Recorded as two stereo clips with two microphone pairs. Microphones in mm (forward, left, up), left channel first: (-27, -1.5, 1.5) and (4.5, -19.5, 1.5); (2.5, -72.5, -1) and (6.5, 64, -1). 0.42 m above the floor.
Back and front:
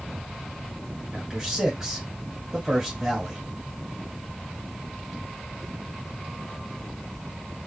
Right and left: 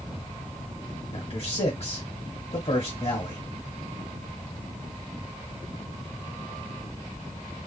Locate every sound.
1.1 s a man speaking: 100° right, 1.9 m